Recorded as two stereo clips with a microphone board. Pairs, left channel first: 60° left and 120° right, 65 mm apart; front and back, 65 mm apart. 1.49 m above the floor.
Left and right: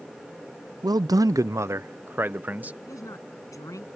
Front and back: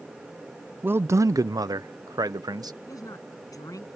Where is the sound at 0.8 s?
120° right; by 2.7 s 175° left.